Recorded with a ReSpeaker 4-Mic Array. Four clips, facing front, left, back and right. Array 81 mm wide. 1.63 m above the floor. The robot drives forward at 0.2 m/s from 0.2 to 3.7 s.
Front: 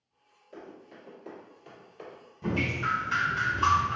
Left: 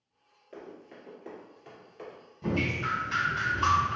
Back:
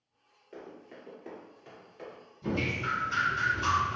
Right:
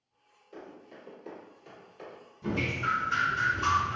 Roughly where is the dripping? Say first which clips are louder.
Even, front 2 dB; ahead left.